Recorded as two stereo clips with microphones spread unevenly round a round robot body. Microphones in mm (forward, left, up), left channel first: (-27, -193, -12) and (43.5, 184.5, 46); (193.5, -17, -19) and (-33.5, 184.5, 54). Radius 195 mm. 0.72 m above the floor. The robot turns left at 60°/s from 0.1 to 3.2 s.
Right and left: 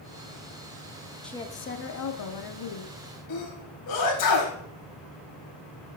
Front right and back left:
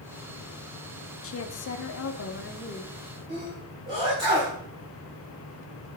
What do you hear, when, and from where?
1.2 s a woman speaking: 15° right, 1.1 m; by 3.2 s 135° right, 1.1 m
3.3 s a sneeze: 140° right, 4 m